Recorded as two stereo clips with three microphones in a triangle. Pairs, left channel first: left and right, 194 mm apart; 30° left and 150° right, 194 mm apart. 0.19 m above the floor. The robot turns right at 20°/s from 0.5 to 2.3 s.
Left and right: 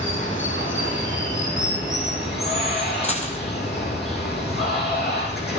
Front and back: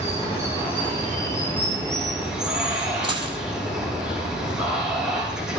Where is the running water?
90° left, 5.5 m; by 5.6 s 125° left, 5.5 m.